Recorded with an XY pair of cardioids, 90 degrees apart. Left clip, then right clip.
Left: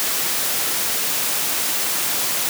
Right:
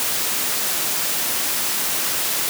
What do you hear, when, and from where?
Only background noise.